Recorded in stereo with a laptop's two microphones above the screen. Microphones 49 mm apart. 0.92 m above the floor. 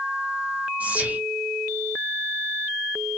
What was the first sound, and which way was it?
Whispering, 30° right (ahead or behind).